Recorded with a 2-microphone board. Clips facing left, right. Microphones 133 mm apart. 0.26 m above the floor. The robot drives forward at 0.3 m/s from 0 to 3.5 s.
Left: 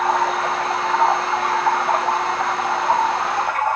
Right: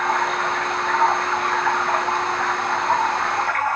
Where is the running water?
35° left (ahead or behind), 3.5 m; by 3.8 s 25° left (ahead or behind), 4.5 m.